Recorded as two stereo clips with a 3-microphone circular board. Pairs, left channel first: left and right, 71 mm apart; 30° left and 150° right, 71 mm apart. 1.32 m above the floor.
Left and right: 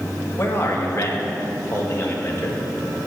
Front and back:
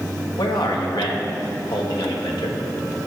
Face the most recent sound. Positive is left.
turn(degrees=35)